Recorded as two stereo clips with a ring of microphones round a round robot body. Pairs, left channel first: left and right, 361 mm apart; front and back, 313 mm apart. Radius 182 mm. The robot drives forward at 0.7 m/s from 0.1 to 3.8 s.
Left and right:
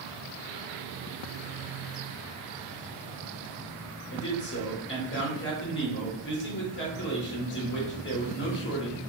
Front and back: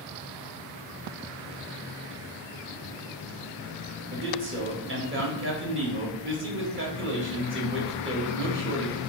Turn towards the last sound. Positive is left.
turn(degrees=140)